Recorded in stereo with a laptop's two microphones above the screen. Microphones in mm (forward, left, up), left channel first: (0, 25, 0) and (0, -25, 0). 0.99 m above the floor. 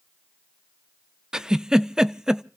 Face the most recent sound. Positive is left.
turn(degrees=-15)  # may be behind; listen again after turning